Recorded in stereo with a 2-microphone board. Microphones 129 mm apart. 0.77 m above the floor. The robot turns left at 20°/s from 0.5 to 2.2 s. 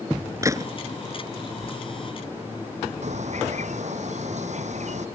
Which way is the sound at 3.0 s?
65° right (ahead or behind).